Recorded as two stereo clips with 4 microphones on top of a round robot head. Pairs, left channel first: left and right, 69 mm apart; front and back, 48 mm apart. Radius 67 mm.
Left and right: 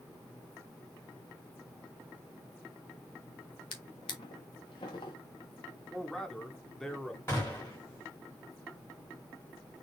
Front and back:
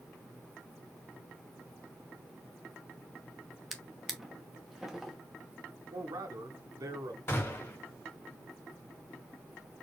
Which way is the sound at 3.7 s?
95° left.